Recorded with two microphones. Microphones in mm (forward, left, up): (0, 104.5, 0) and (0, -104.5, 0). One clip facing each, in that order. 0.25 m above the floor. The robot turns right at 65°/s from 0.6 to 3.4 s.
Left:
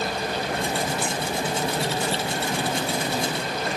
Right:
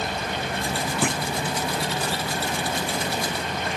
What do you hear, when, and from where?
1.0 s a clunk: 80° right; by 1.2 s 65° right (ahead or behind)